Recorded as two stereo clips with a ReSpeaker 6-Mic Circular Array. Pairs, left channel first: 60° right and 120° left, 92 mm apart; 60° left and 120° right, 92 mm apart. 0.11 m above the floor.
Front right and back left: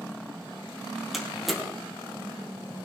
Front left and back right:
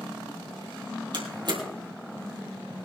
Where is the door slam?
150° right, 3 m.